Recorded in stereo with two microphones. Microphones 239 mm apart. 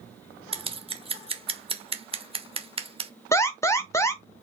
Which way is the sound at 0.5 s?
25° right (ahead or behind).